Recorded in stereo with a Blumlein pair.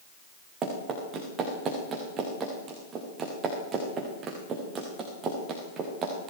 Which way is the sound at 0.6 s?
25° right.